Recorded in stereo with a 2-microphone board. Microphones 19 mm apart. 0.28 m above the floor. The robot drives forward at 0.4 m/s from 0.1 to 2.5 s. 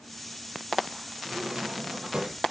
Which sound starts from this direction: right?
A drawer, at 1.2 s.